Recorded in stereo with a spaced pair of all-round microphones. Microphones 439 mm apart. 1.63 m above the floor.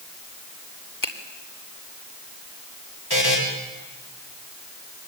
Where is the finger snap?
45° left (ahead or behind), 2.5 m.